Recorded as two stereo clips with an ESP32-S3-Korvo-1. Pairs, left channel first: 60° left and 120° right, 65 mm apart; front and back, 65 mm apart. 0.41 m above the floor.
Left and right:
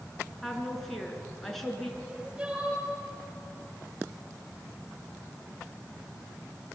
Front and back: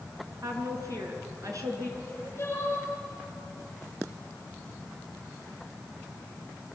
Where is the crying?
50° right, 10 m.